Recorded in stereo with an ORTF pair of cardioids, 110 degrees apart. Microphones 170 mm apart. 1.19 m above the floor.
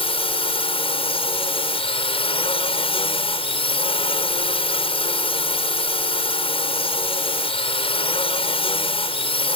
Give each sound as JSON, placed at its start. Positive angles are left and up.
{"t": 0.0, "sound": "a drone", "azimuth_deg": 35}